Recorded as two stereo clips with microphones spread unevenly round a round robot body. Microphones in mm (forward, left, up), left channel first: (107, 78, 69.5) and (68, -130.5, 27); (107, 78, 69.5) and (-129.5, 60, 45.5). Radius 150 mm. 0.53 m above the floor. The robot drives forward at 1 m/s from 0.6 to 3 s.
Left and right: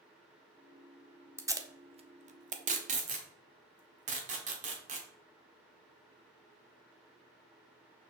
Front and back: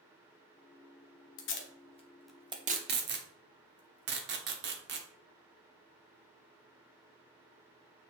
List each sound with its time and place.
1.4 s tape being pulled: 30° right, 1.2 m; by 5.1 s 145° right, 1.1 m